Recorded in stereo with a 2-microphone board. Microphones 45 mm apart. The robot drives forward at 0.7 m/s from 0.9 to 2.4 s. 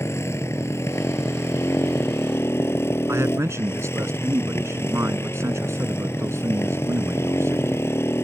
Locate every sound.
0.0 s a motorcycle: 75° left (ahead or behind); by 8.2 s 60° left (ahead or behind)
3.1 s a man speaking: 80° right